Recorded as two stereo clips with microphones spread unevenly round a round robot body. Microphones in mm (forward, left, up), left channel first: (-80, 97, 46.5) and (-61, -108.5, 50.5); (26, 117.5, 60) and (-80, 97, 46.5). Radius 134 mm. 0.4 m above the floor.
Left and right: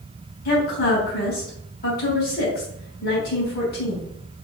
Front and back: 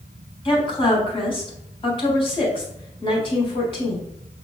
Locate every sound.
0.5 s a woman speaking: 50° left, 3.5 m